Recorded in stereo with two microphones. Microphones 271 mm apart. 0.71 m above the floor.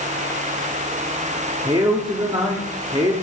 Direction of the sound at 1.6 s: 20° right (ahead or behind).